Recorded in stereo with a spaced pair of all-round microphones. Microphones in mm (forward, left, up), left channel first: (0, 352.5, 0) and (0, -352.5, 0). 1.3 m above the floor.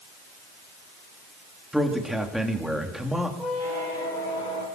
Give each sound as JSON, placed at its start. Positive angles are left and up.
{"t": 1.7, "sound": "a man speaking", "side_deg": 0, "distance_m": 2.5}
{"t": 3.4, "sound": "a squeak", "side_deg": 75, "distance_m": 4.5}